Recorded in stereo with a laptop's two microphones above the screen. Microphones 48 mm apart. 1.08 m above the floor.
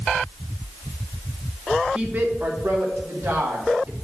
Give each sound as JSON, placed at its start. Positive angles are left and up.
{"t": 1.9, "sound": "a woman speaking", "side_deg": -25, "distance_m": 0.9}